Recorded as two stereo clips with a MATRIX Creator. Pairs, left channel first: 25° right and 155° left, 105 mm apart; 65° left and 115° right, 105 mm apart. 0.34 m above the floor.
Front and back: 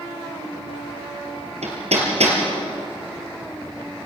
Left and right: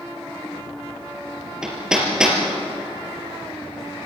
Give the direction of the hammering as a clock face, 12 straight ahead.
7 o'clock.